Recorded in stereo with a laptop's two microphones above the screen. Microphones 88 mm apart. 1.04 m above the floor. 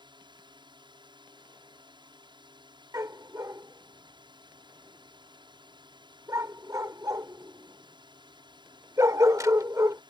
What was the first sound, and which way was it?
A drone, 60° right (ahead or behind).